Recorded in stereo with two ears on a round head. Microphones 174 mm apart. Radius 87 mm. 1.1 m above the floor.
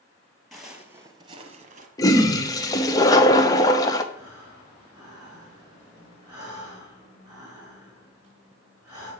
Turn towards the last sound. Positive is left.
turn(degrees=-15)  # may be behind; listen again after turning